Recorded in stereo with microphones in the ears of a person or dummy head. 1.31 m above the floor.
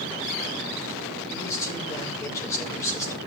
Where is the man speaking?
15° left (ahead or behind), 5.5 m.